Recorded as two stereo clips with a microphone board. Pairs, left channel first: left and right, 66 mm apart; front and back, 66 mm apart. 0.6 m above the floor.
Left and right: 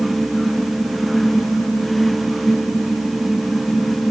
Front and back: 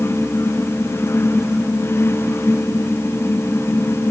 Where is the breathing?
No breathing in this recording.